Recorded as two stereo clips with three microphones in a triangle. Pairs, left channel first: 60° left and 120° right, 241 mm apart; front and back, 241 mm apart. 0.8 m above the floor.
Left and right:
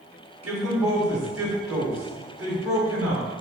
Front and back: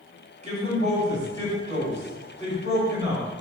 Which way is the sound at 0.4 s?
120° right.